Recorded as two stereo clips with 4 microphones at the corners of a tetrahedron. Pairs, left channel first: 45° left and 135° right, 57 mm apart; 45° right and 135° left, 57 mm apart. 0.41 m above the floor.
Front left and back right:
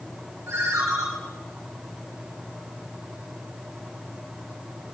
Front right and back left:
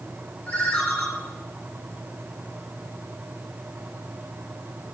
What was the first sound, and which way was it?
A ringtone, 115° right.